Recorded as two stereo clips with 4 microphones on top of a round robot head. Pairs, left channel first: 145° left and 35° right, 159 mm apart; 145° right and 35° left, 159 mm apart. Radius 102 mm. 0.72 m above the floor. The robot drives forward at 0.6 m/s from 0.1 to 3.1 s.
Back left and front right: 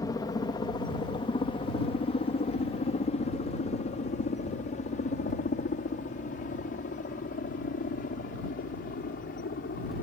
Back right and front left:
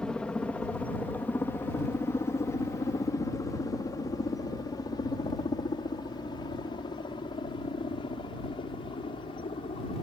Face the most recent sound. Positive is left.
turn(degrees=160)